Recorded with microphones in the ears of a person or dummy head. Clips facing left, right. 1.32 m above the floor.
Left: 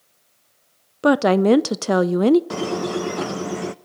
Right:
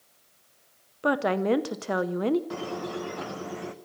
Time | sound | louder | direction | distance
1.0 | a woman speaking | left 9 dB | 65° left (ahead or behind) | 0.7 m
2.5 | a squeak | left 9 dB | 70° left (ahead or behind) | 0.7 m